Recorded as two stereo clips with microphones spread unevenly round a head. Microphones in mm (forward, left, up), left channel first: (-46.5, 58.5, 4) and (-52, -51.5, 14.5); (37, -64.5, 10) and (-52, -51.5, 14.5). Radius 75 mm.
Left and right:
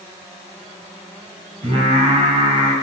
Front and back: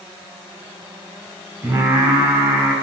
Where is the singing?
125° right, 3 m.